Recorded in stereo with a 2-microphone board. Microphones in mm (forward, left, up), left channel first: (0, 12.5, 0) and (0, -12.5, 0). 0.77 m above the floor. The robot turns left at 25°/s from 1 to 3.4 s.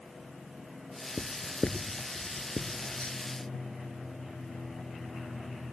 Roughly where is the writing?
Left.